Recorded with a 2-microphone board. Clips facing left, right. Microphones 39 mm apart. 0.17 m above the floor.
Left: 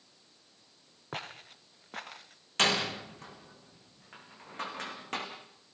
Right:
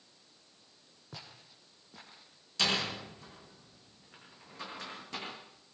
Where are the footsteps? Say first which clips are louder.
Left 10 dB; 50° left (ahead or behind), 1.5 m; by 2.4 s 65° left (ahead or behind), 2.5 m.